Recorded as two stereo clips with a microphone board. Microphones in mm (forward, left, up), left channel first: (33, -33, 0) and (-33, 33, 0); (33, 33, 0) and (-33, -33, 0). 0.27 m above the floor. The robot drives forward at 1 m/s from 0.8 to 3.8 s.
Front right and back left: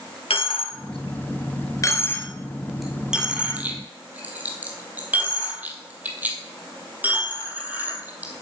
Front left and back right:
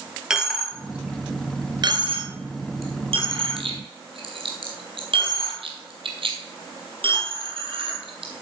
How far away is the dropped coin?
About 1.4 m.